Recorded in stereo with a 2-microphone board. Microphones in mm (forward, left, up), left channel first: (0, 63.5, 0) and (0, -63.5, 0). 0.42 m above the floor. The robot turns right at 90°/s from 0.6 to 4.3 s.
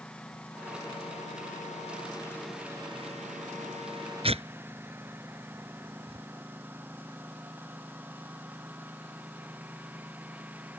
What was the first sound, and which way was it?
A lawn mower, 5° left (ahead or behind).